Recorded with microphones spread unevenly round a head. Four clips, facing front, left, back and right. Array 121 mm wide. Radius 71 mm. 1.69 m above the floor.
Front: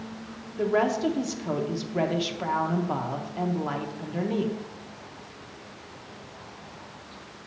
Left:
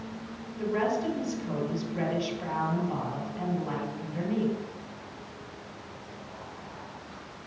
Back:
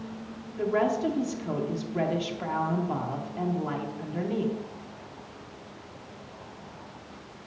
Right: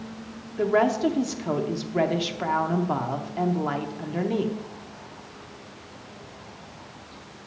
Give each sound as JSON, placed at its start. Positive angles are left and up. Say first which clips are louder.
{"t": 0.6, "sound": "a woman speaking", "louder": "right 7 dB, front 2 dB", "azimuth_deg": -45, "distance_m": 1.0}